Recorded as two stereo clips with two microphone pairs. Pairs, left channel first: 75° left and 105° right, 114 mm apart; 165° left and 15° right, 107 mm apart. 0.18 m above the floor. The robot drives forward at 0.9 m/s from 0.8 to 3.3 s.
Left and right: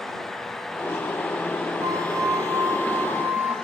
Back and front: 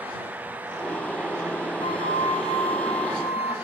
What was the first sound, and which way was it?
A flute, 155° right.